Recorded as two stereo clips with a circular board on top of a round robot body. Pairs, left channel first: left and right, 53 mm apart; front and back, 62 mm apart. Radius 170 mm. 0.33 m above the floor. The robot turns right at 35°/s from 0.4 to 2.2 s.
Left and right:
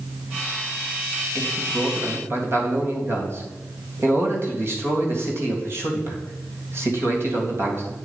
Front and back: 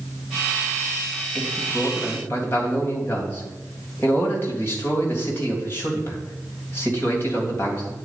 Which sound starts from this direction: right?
A man speaking, at 1.4 s.